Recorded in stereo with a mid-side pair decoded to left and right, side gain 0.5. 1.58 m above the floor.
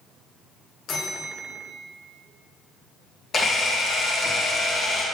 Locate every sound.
0.9 s a bell: 60° left, 1.2 m
3.3 s a camera shutter: 40° left, 1.8 m